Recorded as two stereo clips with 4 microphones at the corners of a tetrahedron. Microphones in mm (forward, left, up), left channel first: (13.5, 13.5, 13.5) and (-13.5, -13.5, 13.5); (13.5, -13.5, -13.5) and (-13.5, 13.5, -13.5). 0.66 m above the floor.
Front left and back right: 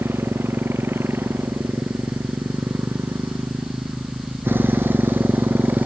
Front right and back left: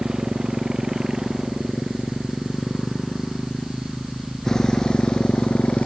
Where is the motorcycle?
150° right; by 5.9 s 100° right.